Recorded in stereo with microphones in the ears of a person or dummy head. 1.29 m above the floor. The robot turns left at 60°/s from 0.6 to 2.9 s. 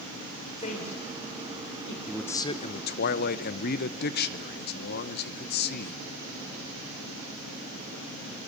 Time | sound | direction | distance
0.6 | a woman speaking | 25° left (ahead or behind) | 3.5 m
2.1 | a man speaking | 175° right | 0.9 m